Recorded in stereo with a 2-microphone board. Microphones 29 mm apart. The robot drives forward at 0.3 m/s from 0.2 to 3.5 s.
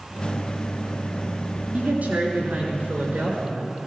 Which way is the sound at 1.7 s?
70° right (ahead or behind).